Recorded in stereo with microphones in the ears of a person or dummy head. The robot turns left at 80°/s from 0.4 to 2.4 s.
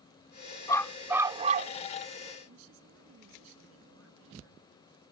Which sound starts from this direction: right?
A woman speaking, at 2.5 s.